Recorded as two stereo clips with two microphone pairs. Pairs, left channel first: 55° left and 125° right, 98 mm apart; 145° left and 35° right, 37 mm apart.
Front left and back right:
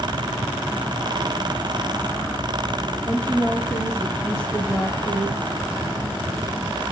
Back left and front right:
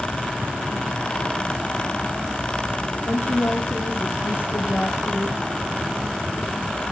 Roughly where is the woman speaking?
Behind left.